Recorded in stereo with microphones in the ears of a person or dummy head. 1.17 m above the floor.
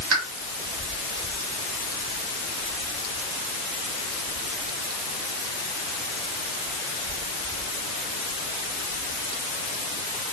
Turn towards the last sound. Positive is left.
turn(degrees=-80)